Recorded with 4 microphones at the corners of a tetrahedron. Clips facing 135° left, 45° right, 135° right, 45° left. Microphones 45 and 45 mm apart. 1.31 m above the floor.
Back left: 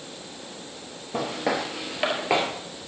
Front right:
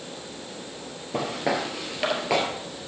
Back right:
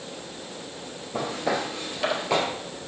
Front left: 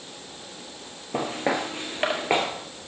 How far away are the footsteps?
About 1.8 m.